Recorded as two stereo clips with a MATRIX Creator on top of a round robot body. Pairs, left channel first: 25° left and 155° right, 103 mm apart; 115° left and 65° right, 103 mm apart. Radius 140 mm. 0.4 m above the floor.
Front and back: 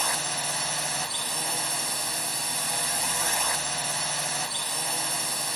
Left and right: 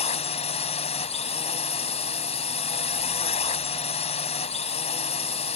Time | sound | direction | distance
0.0 | a drone | 110° left | ?